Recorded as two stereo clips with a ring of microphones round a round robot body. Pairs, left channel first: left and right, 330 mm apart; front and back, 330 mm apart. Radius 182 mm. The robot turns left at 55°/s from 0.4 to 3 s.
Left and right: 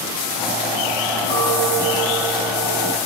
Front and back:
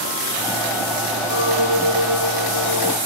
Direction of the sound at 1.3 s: 35° right.